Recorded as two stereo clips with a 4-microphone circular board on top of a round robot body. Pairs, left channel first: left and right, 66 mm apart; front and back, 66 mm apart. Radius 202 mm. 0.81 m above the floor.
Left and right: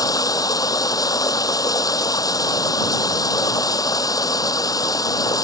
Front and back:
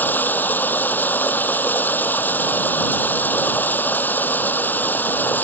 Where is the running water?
65° left.